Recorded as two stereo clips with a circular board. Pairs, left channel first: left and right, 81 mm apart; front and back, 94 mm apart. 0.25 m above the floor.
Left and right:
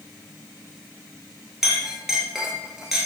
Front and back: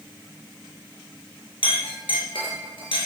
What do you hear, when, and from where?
1.6 s a clink: 5° right, 3.5 m